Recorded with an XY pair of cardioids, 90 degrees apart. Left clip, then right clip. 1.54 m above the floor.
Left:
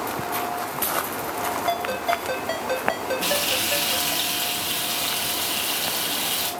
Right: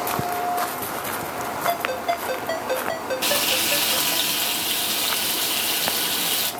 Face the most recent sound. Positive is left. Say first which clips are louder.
# right 3 dB
turn(degrees=-25)